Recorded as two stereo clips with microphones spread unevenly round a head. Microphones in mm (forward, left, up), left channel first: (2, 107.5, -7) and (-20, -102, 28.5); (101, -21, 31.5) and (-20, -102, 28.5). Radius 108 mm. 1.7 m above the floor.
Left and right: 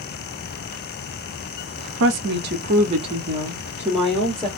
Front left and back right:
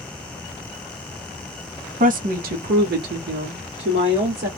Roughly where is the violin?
No violin in this recording.